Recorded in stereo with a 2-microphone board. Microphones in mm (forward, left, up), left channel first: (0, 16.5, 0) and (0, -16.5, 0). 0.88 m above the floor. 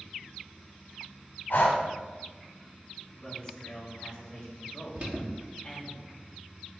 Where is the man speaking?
20° left (ahead or behind), 3 m.